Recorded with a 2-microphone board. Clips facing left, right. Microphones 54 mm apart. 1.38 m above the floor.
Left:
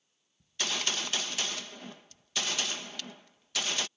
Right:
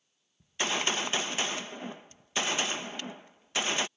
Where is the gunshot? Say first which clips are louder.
Right 4 dB; 25° right (ahead or behind).